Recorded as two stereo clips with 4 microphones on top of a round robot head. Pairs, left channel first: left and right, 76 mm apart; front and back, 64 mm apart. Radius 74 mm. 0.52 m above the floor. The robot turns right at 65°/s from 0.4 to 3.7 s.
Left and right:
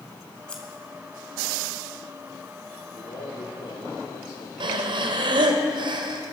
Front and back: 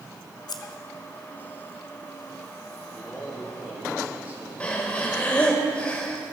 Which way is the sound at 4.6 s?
75° right.